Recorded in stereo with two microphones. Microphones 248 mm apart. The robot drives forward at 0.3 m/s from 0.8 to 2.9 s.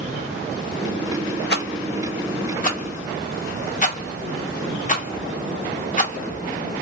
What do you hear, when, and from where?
1.5 s a rattle: 40° left (ahead or behind), 0.7 m; by 6.8 s 30° left (ahead or behind), 0.9 m